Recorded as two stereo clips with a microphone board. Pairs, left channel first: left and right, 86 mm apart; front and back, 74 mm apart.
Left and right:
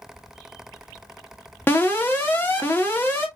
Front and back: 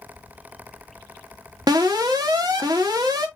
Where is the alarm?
155° left, 1.1 m.